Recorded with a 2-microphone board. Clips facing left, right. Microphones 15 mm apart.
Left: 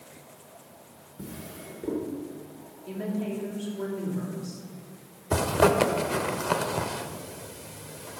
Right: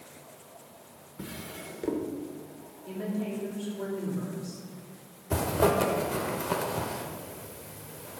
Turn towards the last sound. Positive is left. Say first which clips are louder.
# left 3 dB
turn(degrees=50)  # may be behind; listen again after turning